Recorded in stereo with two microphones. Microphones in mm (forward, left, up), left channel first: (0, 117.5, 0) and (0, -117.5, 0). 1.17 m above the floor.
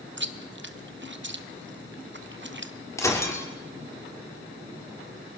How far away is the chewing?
About 0.7 m.